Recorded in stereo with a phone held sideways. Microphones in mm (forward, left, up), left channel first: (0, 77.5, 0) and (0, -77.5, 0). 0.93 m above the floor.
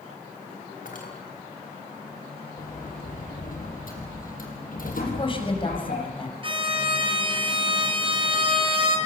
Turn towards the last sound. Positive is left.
turn(degrees=-35)  # may be behind; listen again after turning